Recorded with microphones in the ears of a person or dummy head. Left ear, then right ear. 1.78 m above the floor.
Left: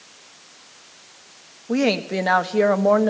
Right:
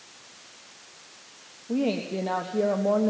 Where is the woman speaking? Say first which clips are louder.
Left 7 dB; 65° left (ahead or behind), 1.4 m.